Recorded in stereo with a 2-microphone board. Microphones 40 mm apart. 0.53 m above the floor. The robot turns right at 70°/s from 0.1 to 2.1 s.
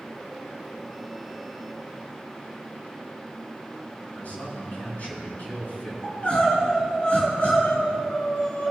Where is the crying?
35° left (ahead or behind), 3 m.